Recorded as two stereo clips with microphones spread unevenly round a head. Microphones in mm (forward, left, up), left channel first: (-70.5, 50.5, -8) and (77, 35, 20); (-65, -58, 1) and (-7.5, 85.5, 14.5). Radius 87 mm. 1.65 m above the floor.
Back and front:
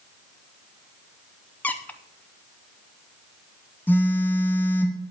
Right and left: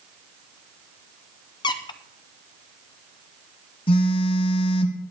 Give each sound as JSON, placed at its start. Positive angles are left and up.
{"t": 1.6, "sound": "a squeak", "azimuth_deg": -90, "distance_m": 0.5}
{"t": 3.9, "sound": "a phone buzzing", "azimuth_deg": -100, "distance_m": 1.0}